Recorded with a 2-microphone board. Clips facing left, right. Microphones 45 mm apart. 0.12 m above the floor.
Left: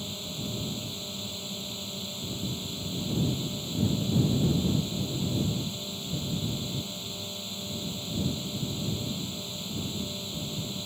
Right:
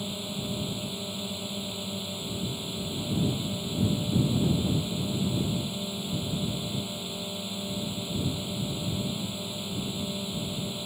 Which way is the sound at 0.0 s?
10° right (ahead or behind).